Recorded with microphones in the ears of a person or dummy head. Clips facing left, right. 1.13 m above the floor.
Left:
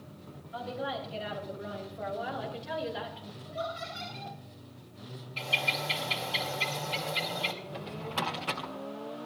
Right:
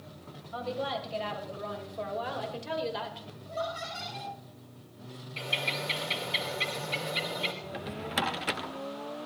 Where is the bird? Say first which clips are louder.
Even; 20° right (ahead or behind), 2.5 m.